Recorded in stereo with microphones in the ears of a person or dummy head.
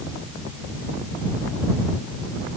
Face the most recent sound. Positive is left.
No sound to turn to.